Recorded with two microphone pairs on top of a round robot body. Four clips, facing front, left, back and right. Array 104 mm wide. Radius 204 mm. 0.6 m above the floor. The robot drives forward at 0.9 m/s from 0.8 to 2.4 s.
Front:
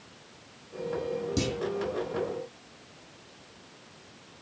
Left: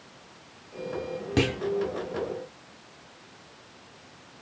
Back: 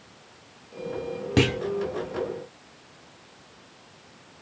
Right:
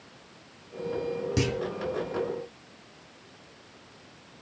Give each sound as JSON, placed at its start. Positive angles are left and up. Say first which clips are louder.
{"t": 1.4, "sound": "a clunk", "louder": "left 5 dB, back 12 dB", "azimuth_deg": 155, "distance_m": 0.6}